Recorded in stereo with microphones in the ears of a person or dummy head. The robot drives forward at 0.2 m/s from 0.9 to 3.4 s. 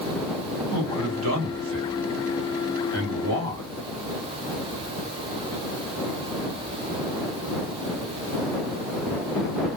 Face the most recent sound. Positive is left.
turn(degrees=-85)